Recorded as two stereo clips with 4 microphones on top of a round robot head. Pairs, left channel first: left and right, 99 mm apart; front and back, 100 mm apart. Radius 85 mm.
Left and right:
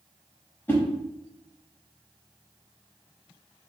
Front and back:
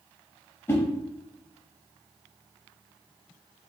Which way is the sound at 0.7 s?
45° left.